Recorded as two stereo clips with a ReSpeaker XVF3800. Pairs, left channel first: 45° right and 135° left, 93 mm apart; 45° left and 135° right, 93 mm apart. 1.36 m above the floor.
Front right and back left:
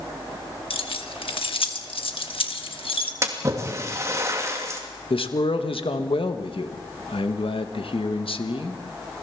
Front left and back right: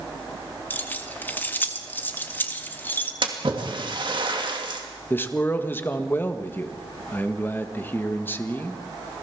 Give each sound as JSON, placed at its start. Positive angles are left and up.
{"t": 0.7, "sound": "keys jangling", "azimuth_deg": -25, "distance_m": 1.6}
{"t": 3.2, "sound": "a splash", "azimuth_deg": -165, "distance_m": 2.5}
{"t": 5.1, "sound": "a man speaking", "azimuth_deg": -25, "distance_m": 1.5}